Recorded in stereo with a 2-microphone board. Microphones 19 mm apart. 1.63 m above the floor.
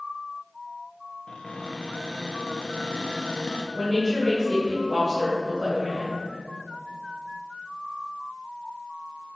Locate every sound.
1.3 s a cupboard door: 50° left (ahead or behind), 0.5 m
3.7 s a woman speaking: 35° right (ahead or behind), 1.8 m